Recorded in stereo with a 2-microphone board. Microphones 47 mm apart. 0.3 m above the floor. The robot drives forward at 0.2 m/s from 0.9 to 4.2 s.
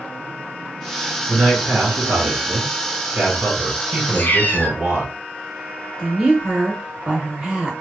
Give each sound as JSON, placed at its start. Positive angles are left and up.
{"t": 1.3, "sound": "a man speaking", "side_deg": -45, "distance_m": 1.9}
{"t": 4.1, "sound": "a cat meowing", "side_deg": 40, "distance_m": 0.6}
{"t": 6.0, "sound": "a woman speaking", "side_deg": -20, "distance_m": 0.9}